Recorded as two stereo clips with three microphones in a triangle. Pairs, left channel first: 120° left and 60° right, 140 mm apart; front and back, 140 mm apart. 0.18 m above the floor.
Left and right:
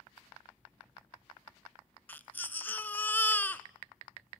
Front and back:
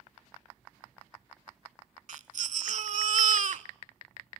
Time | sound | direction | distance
2.1 | a baby crying | 165° right | 0.6 m